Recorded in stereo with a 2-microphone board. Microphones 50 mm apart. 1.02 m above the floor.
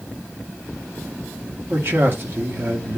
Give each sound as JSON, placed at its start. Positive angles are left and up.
{"t": 1.7, "sound": "a man speaking", "side_deg": -55, "distance_m": 1.8}